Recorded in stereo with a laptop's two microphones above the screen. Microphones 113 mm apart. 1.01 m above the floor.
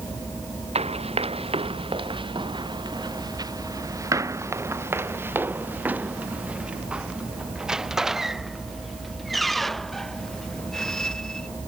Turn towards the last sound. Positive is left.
turn(degrees=5)  # may be behind; listen again after turning